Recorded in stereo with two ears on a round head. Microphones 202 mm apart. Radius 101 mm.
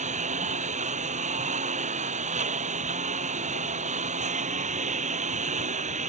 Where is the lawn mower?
35° right (ahead or behind).